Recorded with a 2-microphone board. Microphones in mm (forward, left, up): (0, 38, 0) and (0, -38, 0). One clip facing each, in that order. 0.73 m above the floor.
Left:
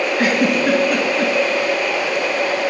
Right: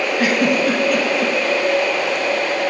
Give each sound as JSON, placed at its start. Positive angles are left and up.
{"t": 0.2, "sound": "a giggle", "side_deg": 45, "distance_m": 2.0}